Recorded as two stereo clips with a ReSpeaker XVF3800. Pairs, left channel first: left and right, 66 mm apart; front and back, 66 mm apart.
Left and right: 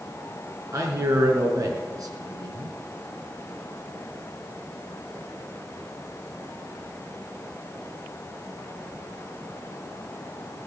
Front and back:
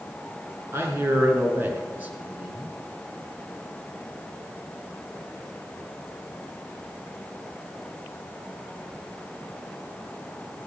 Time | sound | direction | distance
0.7 | a man speaking | 130° right | 3.5 m